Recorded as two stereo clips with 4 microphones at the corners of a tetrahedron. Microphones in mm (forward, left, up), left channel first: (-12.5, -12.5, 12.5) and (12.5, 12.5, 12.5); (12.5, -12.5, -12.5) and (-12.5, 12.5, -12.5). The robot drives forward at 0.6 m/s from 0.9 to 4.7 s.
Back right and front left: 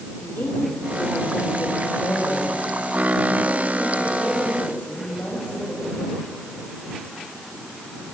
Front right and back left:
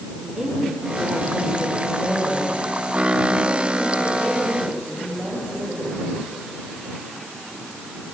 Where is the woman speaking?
150° right, 3 m; by 6.0 s 160° right, 5 m.